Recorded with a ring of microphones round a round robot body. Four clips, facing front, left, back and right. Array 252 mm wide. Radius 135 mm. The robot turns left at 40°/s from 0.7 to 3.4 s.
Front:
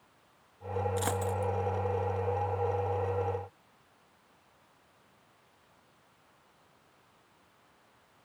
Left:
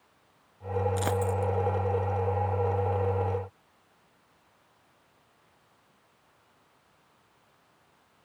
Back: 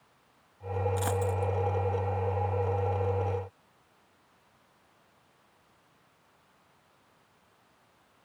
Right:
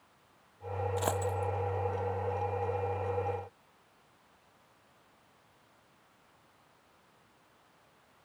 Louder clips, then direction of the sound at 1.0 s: Left 4 dB, back 2 dB; 90° left.